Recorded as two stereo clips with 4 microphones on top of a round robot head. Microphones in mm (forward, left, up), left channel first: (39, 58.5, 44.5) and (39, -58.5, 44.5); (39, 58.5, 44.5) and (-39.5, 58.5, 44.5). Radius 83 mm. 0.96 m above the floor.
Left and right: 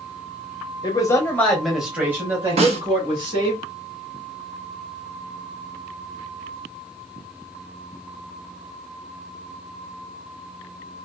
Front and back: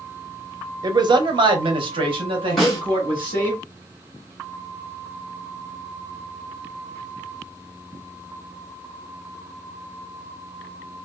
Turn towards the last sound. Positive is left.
turn(degrees=-85)